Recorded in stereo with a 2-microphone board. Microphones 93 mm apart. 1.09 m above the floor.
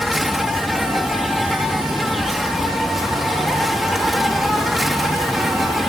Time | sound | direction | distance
0.0 | an insect | centre (ahead or behind) | ?